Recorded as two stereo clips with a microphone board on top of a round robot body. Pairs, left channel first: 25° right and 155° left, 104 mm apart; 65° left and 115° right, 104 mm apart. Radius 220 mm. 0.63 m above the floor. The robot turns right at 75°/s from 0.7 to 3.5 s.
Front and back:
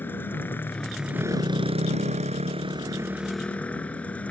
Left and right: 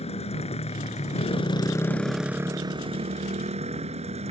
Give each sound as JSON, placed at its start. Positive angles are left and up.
{"t": 0.0, "sound": "a motorcycle", "azimuth_deg": 50}